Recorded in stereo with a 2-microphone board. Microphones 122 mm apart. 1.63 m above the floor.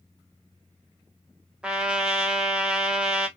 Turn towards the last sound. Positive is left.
turn(degrees=-5)  # may be behind; listen again after turning